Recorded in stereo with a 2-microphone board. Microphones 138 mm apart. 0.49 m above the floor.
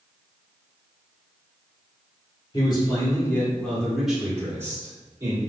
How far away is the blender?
No blender in this recording.